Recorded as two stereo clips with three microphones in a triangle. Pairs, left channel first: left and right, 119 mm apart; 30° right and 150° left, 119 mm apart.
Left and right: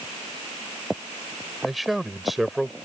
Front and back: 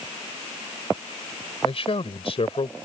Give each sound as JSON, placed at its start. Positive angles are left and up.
{"t": 1.6, "sound": "a man speaking", "azimuth_deg": 0}